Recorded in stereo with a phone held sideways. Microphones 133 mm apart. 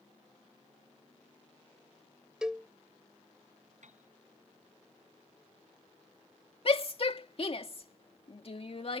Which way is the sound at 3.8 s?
65° right (ahead or behind).